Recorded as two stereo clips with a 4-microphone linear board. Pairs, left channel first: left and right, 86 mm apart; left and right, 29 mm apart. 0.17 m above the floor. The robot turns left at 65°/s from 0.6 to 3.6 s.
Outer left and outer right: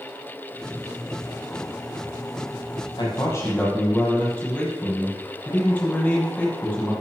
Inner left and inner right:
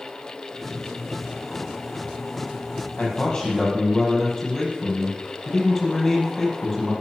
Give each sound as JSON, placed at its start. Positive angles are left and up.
{"t": 3.0, "sound": "a man speaking", "azimuth_deg": 55, "distance_m": 6.0}